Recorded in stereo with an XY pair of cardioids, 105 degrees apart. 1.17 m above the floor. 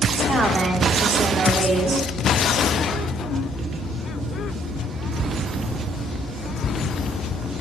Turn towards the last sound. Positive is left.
turn(degrees=-30)